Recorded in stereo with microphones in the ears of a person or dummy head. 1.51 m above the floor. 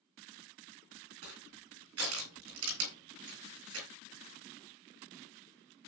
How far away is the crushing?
About 8.5 m.